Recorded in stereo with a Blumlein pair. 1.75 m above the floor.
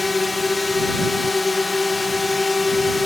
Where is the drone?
10° left.